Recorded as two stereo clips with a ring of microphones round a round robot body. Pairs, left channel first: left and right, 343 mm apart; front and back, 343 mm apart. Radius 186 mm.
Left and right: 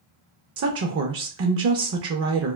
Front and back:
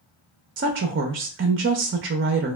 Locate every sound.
0.6 s a woman speaking: 130° right, 0.5 m